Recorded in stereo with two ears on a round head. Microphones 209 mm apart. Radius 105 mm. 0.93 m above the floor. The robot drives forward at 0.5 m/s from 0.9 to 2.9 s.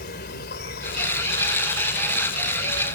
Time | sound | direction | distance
0.0 | an insect | 45° left (ahead or behind) | ?